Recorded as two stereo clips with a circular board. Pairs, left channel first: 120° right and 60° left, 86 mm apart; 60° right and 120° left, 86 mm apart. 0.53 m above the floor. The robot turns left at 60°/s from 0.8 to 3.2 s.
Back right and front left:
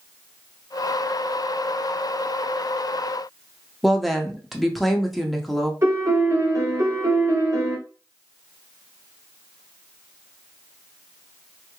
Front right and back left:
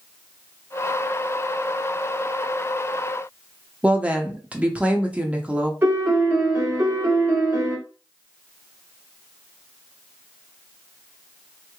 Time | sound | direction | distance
3.8 | a woman speaking | 155° left | 0.6 m
5.8 | a piano | 75° left | 1.4 m